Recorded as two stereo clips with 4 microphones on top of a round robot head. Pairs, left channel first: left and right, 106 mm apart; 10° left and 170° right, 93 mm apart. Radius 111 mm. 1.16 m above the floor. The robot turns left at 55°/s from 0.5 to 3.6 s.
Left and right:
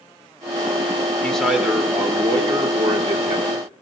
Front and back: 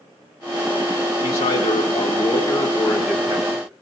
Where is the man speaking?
10° left, 3.5 m; by 3.7 s 120° right, 3.5 m.